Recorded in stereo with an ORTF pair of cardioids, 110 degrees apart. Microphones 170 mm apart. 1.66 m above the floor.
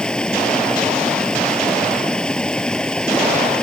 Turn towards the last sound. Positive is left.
turn(degrees=5)